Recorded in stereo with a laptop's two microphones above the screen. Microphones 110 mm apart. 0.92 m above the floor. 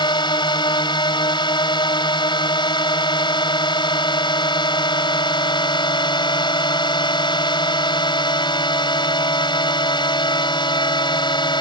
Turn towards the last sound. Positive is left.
turn(degrees=40)  # may be behind; listen again after turning